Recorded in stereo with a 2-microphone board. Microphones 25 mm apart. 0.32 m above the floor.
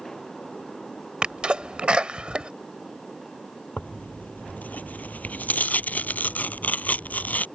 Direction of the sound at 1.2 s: 40° right (ahead or behind).